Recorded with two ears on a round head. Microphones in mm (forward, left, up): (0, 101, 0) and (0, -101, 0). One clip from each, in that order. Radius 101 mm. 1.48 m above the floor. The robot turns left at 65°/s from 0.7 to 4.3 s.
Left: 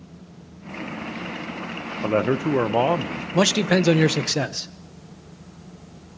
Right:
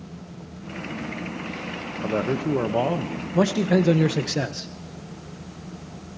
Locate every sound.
2.0 s a man speaking: 95° left, 0.7 m; by 3.2 s 15° left, 0.7 m
3.3 s a man speaking: 90° left, 0.8 m; by 4.7 s 25° left, 0.8 m